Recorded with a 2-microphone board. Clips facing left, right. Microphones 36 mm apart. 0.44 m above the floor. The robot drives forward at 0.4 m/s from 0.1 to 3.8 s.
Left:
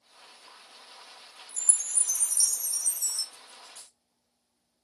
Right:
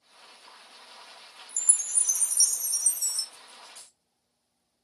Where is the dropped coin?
60° left (ahead or behind), 1.9 m; by 4.0 s 55° left (ahead or behind), 2 m.